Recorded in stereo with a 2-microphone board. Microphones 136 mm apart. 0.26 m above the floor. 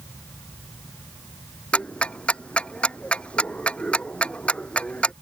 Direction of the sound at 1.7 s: 10° left (ahead or behind).